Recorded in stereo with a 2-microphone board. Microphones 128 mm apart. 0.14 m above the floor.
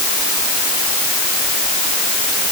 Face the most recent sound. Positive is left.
No sound to turn to.